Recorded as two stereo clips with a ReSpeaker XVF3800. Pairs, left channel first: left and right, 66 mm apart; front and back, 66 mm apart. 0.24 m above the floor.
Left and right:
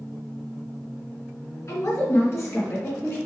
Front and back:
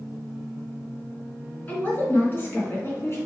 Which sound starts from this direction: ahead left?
A woman speaking, at 1.7 s.